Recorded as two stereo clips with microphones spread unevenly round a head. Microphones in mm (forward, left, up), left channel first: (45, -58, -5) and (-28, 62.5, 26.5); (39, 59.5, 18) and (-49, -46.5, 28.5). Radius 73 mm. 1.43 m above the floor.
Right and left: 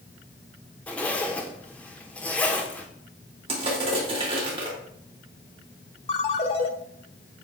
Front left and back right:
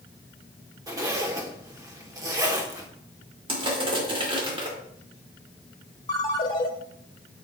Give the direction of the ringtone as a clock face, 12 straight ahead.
12 o'clock.